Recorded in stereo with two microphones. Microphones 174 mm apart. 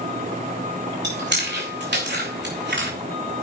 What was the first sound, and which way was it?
Chewing, 80° right.